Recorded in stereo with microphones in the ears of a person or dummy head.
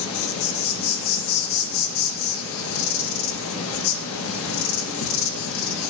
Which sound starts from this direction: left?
An insect, at 0.0 s.